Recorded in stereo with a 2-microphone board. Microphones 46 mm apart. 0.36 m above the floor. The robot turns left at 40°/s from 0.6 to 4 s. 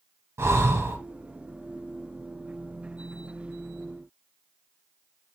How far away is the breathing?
About 0.8 m.